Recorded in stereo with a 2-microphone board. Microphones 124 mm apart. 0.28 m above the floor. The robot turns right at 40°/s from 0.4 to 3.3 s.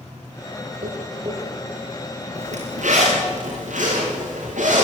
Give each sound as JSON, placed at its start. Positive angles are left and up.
{"t": 0.8, "sound": "tapping", "side_deg": -65, "distance_m": 8.5}
{"t": 2.4, "sound": "a zipper", "side_deg": -60, "distance_m": 9.0}